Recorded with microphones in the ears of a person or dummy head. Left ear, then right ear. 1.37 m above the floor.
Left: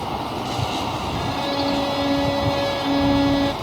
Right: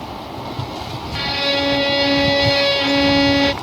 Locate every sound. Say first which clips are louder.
1.1 s a violin: right 8 dB; 65° right (ahead or behind)